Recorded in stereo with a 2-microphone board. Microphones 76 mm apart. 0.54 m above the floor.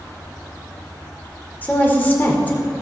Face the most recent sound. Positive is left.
turn(degrees=25)  # may be behind; listen again after turning